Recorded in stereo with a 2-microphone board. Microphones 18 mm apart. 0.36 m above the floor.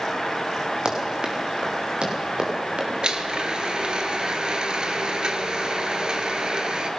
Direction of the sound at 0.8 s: 50° right (ahead or behind).